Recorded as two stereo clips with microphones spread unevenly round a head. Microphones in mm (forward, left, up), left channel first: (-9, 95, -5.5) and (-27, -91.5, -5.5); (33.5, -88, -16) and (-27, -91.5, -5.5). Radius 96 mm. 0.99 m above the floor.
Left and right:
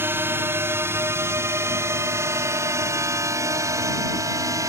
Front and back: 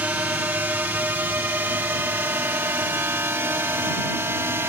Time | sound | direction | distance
0.0 | a drone | 160° right | ?